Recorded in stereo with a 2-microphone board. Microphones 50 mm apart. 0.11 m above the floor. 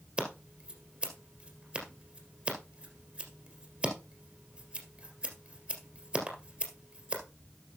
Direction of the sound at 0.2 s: 20° right (ahead or behind).